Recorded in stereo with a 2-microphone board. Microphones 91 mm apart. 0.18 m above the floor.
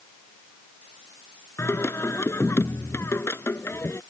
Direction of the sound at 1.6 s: 30° left (ahead or behind).